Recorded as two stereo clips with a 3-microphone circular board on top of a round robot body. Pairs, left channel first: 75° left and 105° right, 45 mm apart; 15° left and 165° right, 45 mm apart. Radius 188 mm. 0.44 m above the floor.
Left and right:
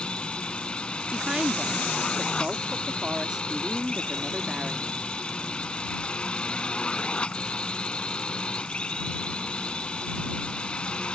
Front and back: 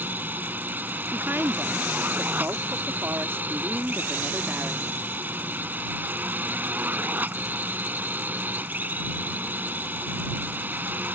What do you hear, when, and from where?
0.0 s a drone: 145° left
1.1 s a woman speaking: 170° right